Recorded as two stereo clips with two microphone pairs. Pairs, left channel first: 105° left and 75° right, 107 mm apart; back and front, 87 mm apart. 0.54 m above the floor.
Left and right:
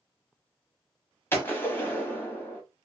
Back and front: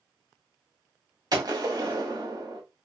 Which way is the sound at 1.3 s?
40° left.